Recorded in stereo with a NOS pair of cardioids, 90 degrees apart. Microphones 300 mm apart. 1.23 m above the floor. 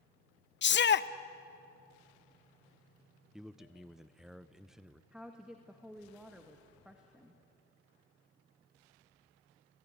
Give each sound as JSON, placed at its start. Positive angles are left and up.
{"t": 0.6, "sound": "a shout", "azimuth_deg": 35, "distance_m": 0.8}
{"t": 3.3, "sound": "a man speaking", "azimuth_deg": 0, "distance_m": 0.6}
{"t": 5.1, "sound": "a woman speaking", "azimuth_deg": -5, "distance_m": 1.9}